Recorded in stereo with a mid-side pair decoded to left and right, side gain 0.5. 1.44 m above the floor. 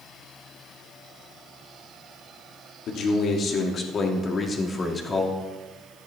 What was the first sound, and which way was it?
A man speaking, 65° left.